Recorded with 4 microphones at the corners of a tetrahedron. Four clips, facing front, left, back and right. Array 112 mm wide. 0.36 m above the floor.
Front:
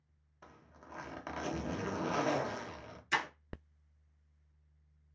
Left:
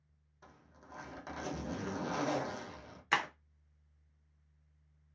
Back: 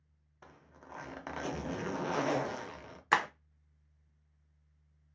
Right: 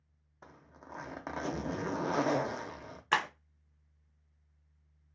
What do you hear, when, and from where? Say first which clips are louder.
0.4 s a zipper: right 5 dB, back 1 dB; 90° right, 0.6 m
3.1 s breaking glass: right 3 dB, back 6 dB; 170° right, 0.6 m